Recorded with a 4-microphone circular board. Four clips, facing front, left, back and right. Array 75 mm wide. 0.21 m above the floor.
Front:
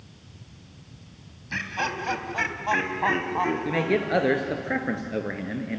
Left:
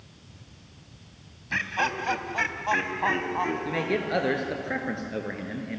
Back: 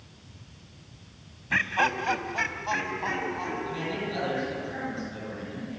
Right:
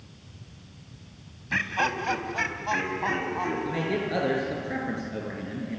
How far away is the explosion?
No explosion in this recording.